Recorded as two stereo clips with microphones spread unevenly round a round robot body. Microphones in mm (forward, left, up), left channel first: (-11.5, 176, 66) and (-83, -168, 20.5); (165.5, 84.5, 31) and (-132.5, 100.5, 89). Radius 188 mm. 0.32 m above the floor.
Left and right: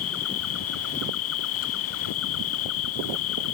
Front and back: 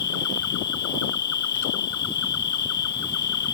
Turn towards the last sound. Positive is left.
turn(degrees=25)